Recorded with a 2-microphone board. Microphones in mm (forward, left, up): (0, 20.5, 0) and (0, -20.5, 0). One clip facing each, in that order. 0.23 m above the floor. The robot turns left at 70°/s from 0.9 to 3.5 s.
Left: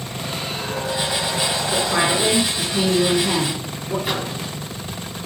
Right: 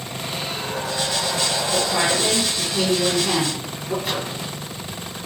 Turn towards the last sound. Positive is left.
turn(degrees=5)  # may be behind; listen again after turning